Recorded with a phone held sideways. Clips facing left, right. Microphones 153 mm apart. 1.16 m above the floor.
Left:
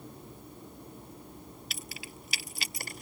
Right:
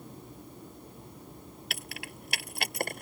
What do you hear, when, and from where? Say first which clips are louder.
1.7 s keys jangling: right 2 dB; 65° right (ahead or behind); by 3.0 s 60° right (ahead or behind)